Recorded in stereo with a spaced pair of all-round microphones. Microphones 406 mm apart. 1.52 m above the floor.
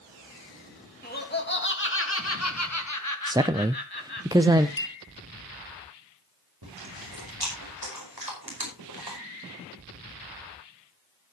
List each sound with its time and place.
1.0 s laughter: 20° left (ahead or behind), 3 m; by 4.3 s 70° left (ahead or behind), 1.6 m
3.3 s a man speaking: 10° right (ahead or behind), 0.5 m
4.8 s a clink: 30° left (ahead or behind), 0.9 m
6.6 s chewing: 60° right (ahead or behind), 5 m